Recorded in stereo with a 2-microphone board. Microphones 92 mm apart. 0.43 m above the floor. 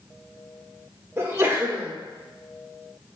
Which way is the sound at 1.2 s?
25° right (ahead or behind).